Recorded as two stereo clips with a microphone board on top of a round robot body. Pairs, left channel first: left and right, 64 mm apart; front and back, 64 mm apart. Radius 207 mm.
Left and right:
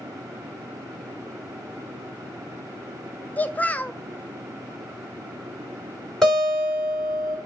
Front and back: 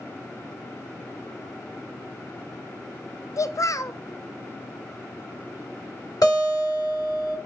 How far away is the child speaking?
About 0.6 m.